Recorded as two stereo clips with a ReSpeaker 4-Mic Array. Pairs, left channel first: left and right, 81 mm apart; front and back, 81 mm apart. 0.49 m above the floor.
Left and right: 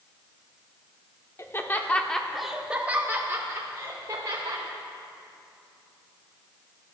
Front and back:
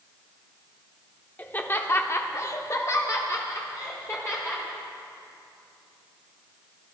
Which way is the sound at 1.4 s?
55° left.